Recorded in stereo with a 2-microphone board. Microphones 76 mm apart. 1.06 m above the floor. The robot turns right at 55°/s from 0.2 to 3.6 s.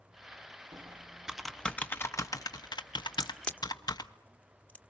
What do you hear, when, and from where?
0.7 s typing on a keyboard: 40° right (ahead or behind), 1.0 m; by 4.1 s 60° left (ahead or behind), 1.0 m
3.1 s a crack: 5° right (ahead or behind), 1.4 m; by 4.8 s 20° left (ahead or behind), 1.4 m